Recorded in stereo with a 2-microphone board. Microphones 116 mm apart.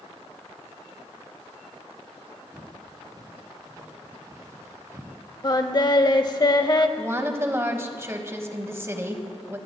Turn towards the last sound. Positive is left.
turn(degrees=-25)  # may be behind; listen again after turning